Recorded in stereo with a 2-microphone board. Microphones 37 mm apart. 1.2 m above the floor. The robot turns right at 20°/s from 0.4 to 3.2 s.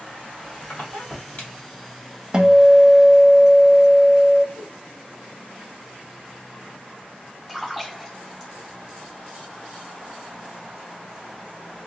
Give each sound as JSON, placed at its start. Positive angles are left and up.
{"t": 0.1, "sound": "a squeak", "side_deg": 65, "distance_m": 1.6}
{"t": 2.3, "sound": "a guitar", "side_deg": -15, "distance_m": 0.6}
{"t": 4.5, "sound": "a whoosh", "side_deg": -5, "distance_m": 0.8}
{"t": 7.5, "sound": "a splash", "side_deg": 5, "distance_m": 1.5}